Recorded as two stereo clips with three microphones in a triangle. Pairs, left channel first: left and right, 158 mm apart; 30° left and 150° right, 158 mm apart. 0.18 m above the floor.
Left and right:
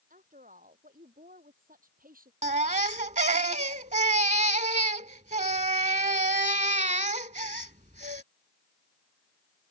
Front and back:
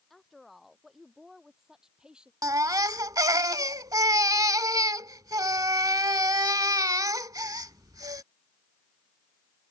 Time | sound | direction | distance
0.1 | a woman speaking | 60° right | ?
2.4 | a baby crying | 90° right | ?